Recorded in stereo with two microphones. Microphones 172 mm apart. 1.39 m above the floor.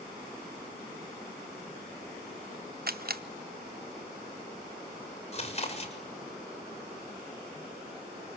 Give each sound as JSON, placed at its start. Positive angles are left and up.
{"t": 2.9, "sound": "a camera shutter", "side_deg": -65, "distance_m": 1.0}
{"t": 5.3, "sound": "chewing", "side_deg": 40, "distance_m": 6.5}